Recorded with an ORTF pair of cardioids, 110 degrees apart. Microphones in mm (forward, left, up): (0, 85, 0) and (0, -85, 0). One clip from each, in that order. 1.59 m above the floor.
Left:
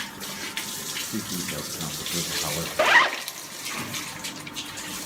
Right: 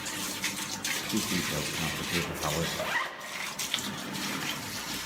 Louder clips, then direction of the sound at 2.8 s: Left 13 dB; 60° left.